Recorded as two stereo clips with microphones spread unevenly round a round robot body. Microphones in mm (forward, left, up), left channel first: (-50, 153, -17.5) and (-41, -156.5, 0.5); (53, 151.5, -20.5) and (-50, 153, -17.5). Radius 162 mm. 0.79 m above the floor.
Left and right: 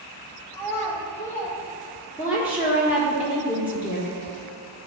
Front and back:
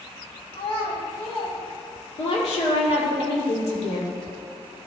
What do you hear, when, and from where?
0.5 s a child speaking: 10° left, 1.5 m
2.2 s a woman speaking: straight ahead, 1.5 m